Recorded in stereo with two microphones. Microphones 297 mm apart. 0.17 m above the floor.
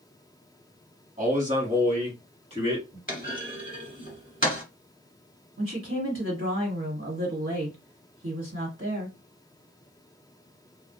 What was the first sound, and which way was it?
A man speaking, 25° right (ahead or behind).